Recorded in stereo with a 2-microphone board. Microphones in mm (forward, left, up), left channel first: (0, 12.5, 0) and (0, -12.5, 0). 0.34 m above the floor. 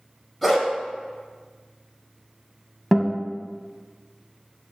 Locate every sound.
0.4 s a dog barking: 5° left (ahead or behind), 1.0 m
2.9 s a guitar: centre (ahead or behind), 0.6 m